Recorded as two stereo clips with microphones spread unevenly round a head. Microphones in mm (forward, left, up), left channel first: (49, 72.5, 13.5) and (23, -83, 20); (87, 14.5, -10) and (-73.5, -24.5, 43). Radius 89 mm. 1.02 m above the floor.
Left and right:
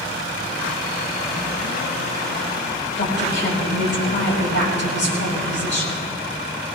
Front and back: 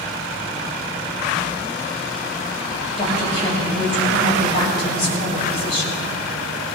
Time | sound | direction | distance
3.0 | a woman speaking | 75° left | 6 m